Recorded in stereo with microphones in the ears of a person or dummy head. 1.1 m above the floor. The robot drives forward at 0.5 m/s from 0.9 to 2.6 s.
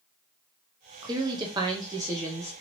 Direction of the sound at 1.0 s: 20° right (ahead or behind).